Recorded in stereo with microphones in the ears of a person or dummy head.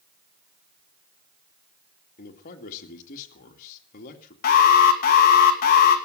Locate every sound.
2.2 s a man speaking: 40° left (ahead or behind), 2.5 m
4.4 s an alarm: 50° left (ahead or behind), 2 m